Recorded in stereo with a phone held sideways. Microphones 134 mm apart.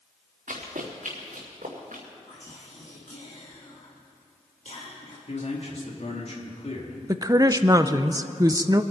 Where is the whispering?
60° left (ahead or behind), 1.7 m.